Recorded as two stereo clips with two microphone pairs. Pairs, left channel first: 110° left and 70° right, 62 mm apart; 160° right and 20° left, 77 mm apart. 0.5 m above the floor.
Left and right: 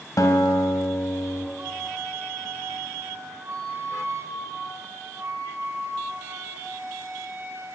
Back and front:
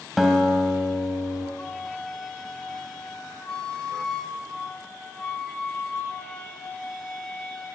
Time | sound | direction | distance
0.2 | a guitar | 110° left | 1.9 m
1.6 | a flute | 85° right | 2.5 m